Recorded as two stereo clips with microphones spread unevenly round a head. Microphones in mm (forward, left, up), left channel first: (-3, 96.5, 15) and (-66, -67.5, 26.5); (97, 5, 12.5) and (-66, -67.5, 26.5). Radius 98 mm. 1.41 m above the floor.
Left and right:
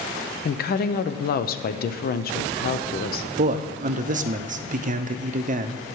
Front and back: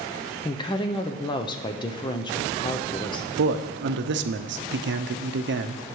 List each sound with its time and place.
0.5 s a woman speaking: 85° left, 0.6 m
3.4 s a man speaking: 155° right, 0.6 m